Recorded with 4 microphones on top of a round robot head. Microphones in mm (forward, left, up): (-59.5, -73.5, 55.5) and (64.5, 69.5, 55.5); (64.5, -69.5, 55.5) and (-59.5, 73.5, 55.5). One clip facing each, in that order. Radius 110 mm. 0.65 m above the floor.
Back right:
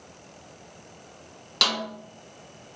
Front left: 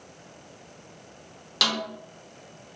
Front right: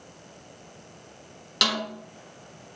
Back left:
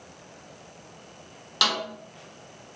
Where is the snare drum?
30° right, 1.1 m.